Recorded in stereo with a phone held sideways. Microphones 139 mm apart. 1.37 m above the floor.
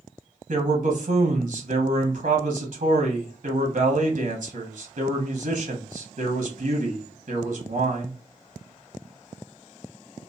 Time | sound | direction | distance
0.5 | a man speaking | 80° right | 1.0 m